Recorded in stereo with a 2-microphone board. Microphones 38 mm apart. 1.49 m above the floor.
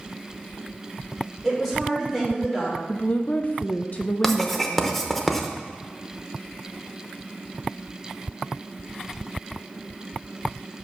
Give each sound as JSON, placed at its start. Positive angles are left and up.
{"t": 1.4, "sound": "a woman speaking", "side_deg": 10, "distance_m": 4.0}
{"t": 2.9, "sound": "a woman speaking", "side_deg": 45, "distance_m": 0.5}
{"t": 4.2, "sound": "writing", "side_deg": 10, "distance_m": 0.8}